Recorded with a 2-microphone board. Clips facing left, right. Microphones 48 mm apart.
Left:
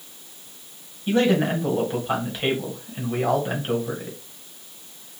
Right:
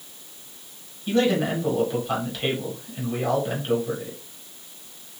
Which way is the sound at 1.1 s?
25° left (ahead or behind).